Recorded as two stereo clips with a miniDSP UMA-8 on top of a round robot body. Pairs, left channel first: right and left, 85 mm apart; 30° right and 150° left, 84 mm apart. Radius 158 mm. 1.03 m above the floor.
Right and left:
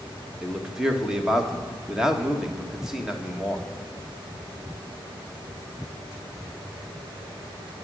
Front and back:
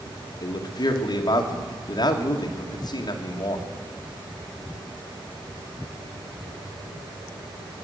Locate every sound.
0.4 s a man speaking: 5° left, 1.8 m